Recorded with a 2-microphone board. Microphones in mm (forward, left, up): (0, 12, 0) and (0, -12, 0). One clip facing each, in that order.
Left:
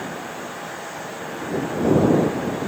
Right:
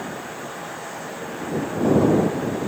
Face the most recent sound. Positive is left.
No sound to turn to.